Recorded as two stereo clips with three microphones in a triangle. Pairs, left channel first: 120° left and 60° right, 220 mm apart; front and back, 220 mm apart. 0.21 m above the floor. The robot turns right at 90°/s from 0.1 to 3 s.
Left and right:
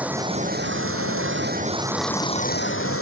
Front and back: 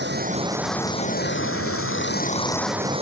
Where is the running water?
145° right; by 3.0 s 120° left.